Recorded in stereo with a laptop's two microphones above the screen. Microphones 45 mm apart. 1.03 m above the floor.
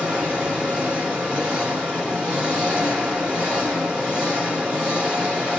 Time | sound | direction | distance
0.0 | an engine running | 25° right (ahead or behind) | 2.5 m